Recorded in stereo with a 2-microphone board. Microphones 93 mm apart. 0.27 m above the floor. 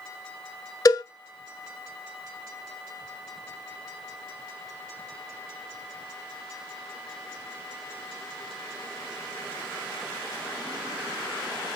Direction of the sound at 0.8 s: 40° left (ahead or behind).